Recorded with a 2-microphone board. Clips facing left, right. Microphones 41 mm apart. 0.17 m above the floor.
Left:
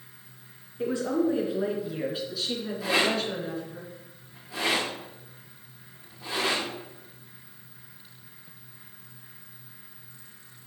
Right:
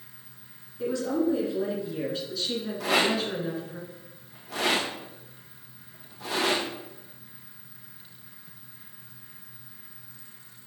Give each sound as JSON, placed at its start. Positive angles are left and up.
{"t": 0.8, "sound": "a woman speaking", "side_deg": 30, "distance_m": 2.5}
{"t": 2.8, "sound": "a rattle", "side_deg": -55, "distance_m": 2.5}